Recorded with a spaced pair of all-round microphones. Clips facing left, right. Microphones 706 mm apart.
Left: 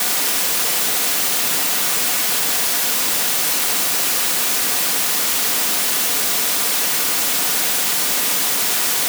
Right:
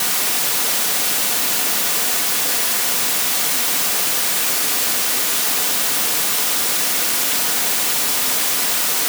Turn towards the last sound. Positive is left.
No sound to turn to.